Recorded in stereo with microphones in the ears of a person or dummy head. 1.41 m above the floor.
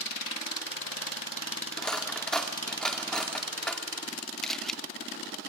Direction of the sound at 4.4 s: 5° left (ahead or behind).